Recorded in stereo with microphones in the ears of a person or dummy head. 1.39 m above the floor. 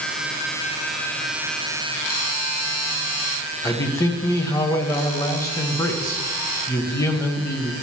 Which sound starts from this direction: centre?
A man speaking, at 3.6 s.